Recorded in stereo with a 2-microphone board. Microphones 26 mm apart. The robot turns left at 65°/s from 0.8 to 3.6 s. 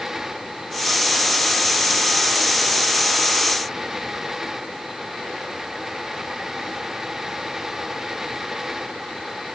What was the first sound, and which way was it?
Only background noise.